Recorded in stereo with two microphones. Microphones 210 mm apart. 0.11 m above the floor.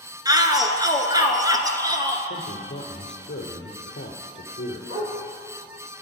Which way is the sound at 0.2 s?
20° right (ahead or behind).